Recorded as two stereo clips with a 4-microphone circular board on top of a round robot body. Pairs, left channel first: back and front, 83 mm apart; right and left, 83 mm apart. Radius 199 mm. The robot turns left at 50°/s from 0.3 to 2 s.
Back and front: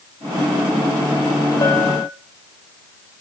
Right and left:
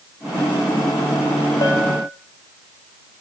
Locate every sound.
1.6 s a bell: 140° right, 2 m; by 2.1 s 160° right, 2 m